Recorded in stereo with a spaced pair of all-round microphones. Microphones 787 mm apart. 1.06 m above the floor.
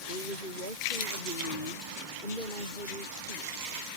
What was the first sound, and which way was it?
A woman speaking, 80° left.